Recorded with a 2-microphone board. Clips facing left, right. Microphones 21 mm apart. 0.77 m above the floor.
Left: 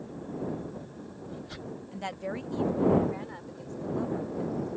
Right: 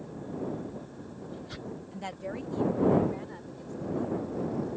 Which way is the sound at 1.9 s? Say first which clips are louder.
Left 3 dB; 10° left (ahead or behind).